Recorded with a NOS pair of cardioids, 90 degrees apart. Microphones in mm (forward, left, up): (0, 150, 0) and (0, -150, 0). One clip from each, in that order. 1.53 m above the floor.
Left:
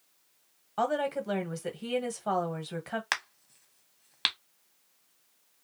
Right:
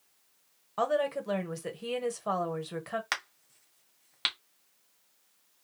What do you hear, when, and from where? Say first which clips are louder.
0.8 s a woman speaking: even; straight ahead, 1.1 m
3.1 s a crack: left 2 dB; 15° left, 1.0 m